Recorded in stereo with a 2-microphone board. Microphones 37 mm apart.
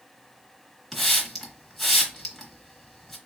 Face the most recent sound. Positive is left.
turn(degrees=5)  # may be behind; listen again after turning